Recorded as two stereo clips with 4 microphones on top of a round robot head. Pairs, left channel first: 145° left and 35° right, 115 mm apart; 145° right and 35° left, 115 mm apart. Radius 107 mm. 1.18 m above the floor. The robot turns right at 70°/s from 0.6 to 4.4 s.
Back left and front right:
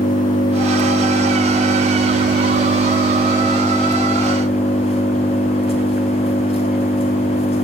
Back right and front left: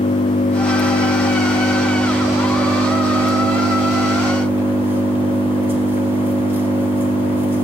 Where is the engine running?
160° right, 4.5 m; by 7.7 s 105° left, 4.5 m.